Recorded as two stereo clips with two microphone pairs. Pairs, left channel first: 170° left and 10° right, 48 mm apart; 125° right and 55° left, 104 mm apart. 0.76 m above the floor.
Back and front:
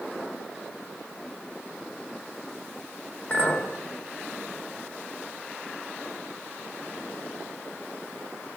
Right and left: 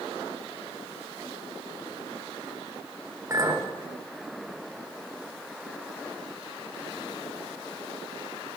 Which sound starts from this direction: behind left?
A clink, at 3.3 s.